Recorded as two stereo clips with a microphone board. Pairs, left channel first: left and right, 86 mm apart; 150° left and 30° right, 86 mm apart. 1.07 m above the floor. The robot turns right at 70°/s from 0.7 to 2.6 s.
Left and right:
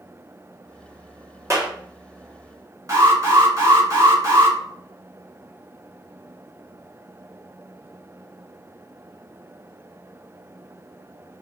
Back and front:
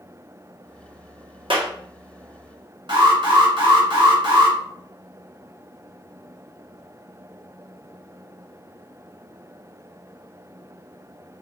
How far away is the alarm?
About 2.5 m.